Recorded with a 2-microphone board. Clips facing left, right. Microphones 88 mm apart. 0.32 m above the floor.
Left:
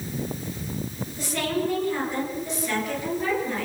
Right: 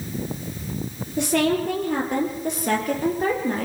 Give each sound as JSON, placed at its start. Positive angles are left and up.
{"t": 1.2, "sound": "a woman speaking", "side_deg": -65, "distance_m": 7.0}